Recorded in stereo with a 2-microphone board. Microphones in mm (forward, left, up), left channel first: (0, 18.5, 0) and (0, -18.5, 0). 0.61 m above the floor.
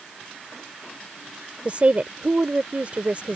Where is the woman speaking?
40° right (ahead or behind).